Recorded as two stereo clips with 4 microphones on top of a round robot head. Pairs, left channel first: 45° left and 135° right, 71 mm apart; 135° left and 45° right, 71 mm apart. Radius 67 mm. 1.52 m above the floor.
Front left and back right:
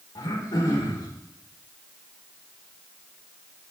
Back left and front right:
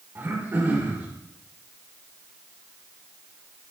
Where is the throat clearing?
20° left, 5.5 m.